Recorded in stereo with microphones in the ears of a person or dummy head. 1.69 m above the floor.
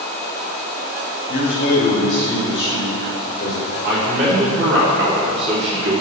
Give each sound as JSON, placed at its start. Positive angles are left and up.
{"t": 1.3, "sound": "a man speaking", "side_deg": 40, "distance_m": 2.5}
{"t": 3.8, "sound": "a man speaking", "side_deg": -70, "distance_m": 3.5}